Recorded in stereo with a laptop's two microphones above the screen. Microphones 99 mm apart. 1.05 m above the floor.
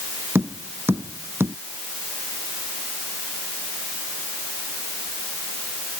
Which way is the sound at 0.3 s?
25° right (ahead or behind).